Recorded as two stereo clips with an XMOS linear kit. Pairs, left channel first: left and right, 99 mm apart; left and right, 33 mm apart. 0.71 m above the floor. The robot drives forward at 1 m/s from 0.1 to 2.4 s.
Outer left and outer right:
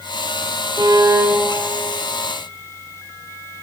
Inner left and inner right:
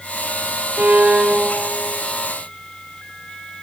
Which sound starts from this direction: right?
A violin, at 0.8 s.